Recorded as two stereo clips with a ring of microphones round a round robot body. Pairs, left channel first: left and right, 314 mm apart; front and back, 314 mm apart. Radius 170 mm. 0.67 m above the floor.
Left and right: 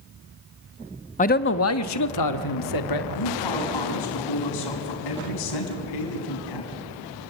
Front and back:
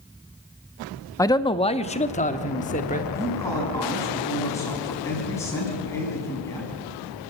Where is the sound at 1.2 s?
65° left, 0.5 m; by 3.0 s 70° left, 1.4 m.